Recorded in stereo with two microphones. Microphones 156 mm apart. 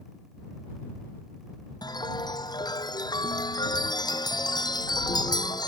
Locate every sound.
1.8 s a chime: 25° left (ahead or behind)